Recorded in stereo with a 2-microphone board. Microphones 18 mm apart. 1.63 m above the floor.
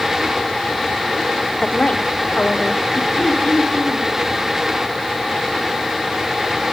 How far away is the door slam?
I don't hear a door slam.